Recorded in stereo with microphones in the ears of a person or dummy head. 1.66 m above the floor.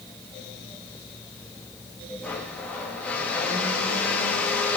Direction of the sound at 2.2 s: 10° left (ahead or behind).